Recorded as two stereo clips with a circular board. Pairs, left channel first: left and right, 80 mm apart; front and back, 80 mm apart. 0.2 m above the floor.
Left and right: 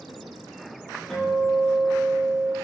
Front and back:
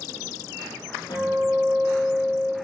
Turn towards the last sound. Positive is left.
turn(degrees=10)